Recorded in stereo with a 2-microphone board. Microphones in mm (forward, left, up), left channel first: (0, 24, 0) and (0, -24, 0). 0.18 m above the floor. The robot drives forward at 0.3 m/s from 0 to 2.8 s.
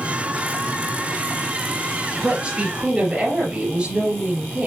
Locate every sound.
2.2 s a woman speaking: 25° right (ahead or behind), 3 m